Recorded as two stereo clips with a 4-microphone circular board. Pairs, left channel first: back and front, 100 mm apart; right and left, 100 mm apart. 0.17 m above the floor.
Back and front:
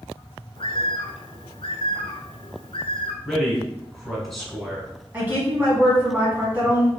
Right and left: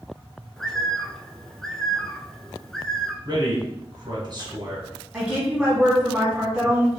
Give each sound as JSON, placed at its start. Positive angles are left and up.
{"t": 0.6, "sound": "a bird", "azimuth_deg": -175, "distance_m": 0.6}
{"t": 3.2, "sound": "a man speaking", "azimuth_deg": 90, "distance_m": 1.6}
{"t": 5.1, "sound": "a woman speaking", "azimuth_deg": 25, "distance_m": 1.3}